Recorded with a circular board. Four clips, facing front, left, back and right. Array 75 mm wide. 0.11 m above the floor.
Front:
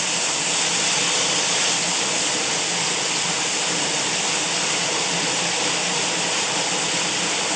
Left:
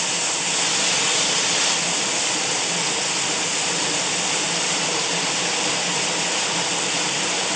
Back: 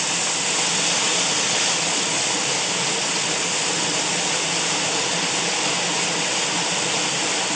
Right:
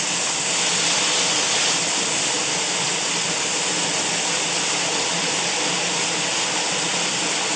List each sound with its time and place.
Only background noise.